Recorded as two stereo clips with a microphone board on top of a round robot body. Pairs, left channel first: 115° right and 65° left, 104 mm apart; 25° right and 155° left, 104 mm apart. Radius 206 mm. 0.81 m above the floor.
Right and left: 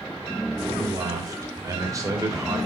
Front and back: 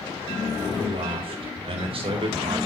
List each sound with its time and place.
0.8 s a man speaking: 125° left, 3.5 m